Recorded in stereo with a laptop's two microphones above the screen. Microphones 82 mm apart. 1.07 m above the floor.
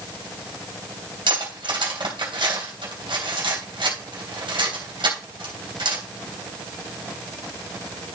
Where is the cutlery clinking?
80° right, 3 m.